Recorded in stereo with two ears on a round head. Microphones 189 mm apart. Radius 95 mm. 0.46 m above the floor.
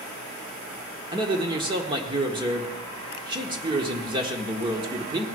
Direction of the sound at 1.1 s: 25° right (ahead or behind).